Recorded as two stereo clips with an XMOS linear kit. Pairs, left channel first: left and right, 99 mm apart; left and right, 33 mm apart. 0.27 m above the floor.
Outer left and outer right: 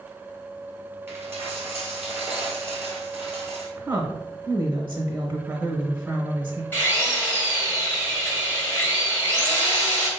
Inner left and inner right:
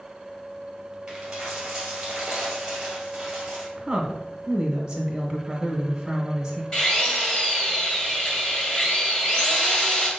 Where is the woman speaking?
20° right (ahead or behind), 0.9 m.